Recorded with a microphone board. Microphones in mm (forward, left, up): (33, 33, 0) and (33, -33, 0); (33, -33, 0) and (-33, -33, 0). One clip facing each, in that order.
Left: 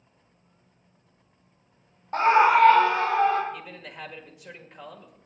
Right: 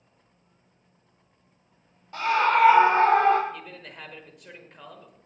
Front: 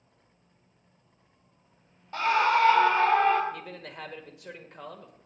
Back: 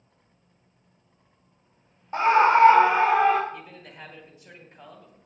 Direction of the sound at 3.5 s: 5° left.